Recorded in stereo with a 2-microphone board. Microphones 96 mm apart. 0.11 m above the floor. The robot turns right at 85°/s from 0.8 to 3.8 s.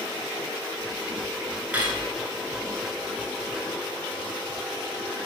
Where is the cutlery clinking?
15° right (ahead or behind), 0.9 m; by 2.0 s 5° right (ahead or behind), 0.9 m.